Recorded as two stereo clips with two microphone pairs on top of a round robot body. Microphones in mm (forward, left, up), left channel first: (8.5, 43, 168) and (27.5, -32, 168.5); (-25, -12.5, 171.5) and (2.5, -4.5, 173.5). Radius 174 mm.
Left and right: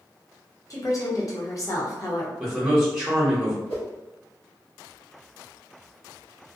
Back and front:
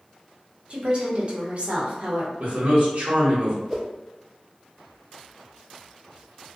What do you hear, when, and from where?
0.7 s a woman speaking: 65° left, 0.9 m
2.4 s a man speaking: straight ahead, 1.0 m
3.7 s a whoosh: 100° left, 1.0 m